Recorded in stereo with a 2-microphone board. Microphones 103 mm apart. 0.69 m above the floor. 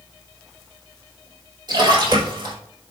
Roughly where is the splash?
Right.